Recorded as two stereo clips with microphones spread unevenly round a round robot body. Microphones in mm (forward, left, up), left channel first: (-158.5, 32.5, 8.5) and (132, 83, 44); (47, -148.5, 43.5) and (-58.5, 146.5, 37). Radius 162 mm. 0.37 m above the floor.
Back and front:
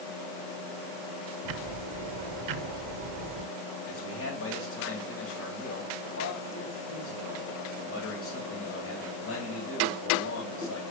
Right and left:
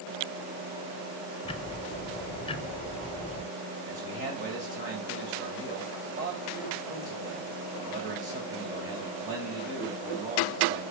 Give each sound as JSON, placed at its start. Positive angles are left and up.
{"t": 1.4, "sound": "ticking", "azimuth_deg": 5, "distance_m": 0.5}
{"t": 3.9, "sound": "a man speaking", "azimuth_deg": 165, "distance_m": 2.5}